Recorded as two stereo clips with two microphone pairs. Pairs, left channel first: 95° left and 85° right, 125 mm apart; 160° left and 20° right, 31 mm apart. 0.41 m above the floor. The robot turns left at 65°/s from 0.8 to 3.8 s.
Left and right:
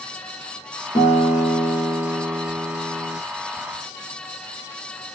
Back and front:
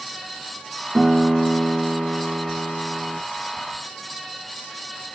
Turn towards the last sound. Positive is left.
turn(degrees=-125)